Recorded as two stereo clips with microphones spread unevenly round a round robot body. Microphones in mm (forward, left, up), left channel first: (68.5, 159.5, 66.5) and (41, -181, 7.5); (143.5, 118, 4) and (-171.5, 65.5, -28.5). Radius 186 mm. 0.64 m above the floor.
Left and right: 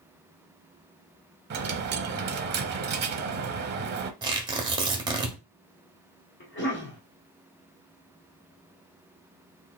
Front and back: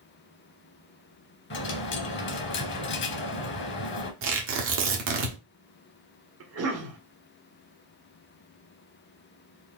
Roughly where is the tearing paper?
Behind right.